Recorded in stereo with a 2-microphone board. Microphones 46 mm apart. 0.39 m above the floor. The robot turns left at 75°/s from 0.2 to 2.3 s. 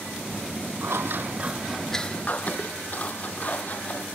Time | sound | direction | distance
0.8 | scissors | 75° right (ahead or behind) | ?